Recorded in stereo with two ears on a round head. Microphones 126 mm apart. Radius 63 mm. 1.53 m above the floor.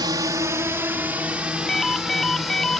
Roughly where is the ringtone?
Centre.